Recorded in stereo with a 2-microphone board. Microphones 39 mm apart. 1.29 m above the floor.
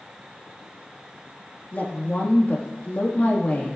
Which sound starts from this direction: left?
A woman speaking, at 1.7 s.